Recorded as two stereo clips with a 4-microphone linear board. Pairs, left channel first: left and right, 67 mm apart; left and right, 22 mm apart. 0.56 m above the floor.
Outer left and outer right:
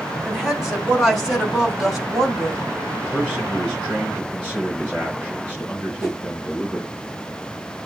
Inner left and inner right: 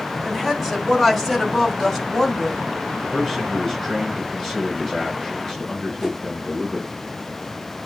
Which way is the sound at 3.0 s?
15° left (ahead or behind).